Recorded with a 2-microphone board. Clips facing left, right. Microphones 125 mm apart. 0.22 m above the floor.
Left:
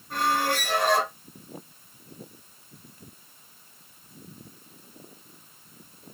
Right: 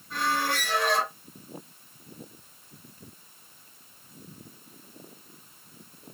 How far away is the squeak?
About 2.5 m.